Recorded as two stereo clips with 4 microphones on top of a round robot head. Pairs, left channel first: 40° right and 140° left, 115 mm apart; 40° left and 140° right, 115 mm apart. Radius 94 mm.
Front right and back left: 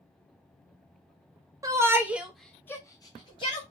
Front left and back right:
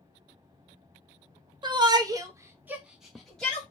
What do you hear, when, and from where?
1.6 s a shout: 170° right, 1.1 m; by 3.6 s 35° right, 1.2 m